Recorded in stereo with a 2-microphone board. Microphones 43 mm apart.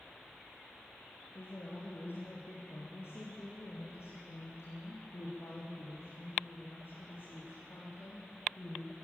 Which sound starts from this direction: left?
A woman speaking, at 1.4 s.